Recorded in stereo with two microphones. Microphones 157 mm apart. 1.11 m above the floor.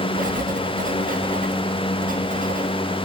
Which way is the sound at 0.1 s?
60° right (ahead or behind).